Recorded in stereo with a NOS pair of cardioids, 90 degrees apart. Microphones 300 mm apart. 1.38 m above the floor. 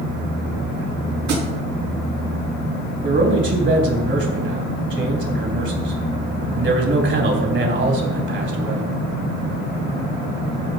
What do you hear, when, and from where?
1.3 s a thud: 65° right, 5.5 m
3.0 s a man speaking: 40° right, 3.5 m